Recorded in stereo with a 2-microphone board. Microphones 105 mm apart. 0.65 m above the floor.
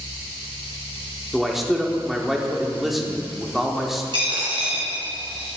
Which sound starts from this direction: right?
A dropped coin, at 4.1 s.